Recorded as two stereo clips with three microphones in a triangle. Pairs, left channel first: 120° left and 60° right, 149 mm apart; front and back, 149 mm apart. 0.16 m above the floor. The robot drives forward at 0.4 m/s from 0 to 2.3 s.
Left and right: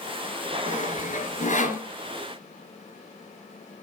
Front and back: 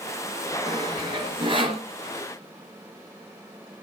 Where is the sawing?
125° left, 2.5 m; by 1.9 s 135° left, 2.5 m.